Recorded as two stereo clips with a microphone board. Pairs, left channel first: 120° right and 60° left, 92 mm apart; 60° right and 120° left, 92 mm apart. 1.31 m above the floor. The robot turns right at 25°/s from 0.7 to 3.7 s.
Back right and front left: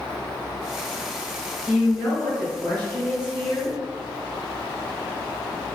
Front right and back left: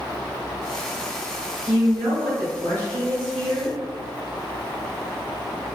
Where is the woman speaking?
130° left, 1.8 m; by 3.8 s 175° right, 1.8 m.